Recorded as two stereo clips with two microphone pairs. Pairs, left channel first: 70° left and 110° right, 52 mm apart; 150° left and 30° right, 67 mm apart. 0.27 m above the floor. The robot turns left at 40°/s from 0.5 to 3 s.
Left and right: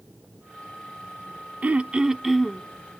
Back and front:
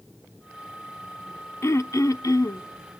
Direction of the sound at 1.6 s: 165° right.